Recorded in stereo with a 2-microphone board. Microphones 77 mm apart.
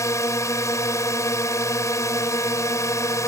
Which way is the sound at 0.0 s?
40° left (ahead or behind).